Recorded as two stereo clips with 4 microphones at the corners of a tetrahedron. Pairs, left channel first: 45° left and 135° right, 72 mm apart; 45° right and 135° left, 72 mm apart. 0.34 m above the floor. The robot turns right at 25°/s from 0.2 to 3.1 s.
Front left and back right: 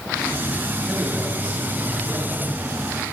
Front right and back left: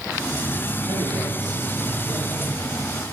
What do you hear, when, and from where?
0.9 s a man speaking: 145° left, 5 m; by 2.4 s 175° right, 5 m